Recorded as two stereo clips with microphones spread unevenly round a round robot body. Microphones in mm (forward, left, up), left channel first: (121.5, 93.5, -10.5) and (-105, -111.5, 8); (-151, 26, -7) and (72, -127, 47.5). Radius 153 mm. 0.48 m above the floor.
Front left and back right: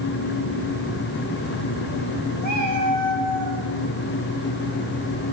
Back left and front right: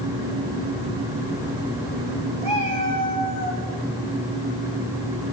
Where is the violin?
No violin in this recording.